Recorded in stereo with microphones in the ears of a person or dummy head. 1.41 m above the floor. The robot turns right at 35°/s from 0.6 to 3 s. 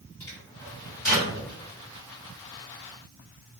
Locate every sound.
0.2 s a microwave: 15° left (ahead or behind), 1.7 m; by 1.3 s 10° right (ahead or behind), 1.7 m